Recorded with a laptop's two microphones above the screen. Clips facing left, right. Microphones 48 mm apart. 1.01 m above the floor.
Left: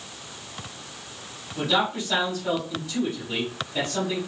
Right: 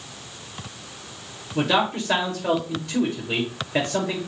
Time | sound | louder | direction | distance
1.6 | a man speaking | right 3 dB | 70° right (ahead or behind) | 3 m